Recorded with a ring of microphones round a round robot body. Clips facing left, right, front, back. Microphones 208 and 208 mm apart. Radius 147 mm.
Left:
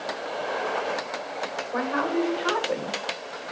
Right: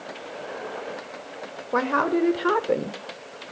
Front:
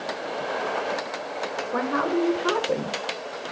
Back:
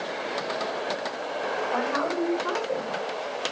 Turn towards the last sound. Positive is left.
turn(degrees=-50)